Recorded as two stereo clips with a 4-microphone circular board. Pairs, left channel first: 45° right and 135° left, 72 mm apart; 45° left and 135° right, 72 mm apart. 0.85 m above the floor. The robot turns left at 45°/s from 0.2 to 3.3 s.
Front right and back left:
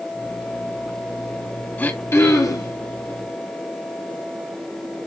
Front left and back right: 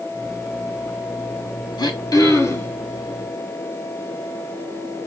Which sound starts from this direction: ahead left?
Throat clearing, at 1.8 s.